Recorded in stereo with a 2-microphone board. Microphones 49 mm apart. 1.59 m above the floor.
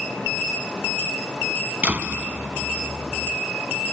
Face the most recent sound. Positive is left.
turn(degrees=-30)  # may be behind; listen again after turning